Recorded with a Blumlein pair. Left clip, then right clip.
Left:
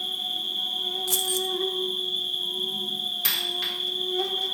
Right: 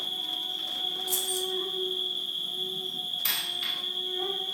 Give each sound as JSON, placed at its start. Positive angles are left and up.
{"t": 0.0, "sound": "an insect", "azimuth_deg": 40, "distance_m": 1.9}
{"t": 1.1, "sound": "keys jangling", "azimuth_deg": 20, "distance_m": 0.6}
{"t": 3.2, "sound": "a dropped coin", "azimuth_deg": 30, "distance_m": 2.0}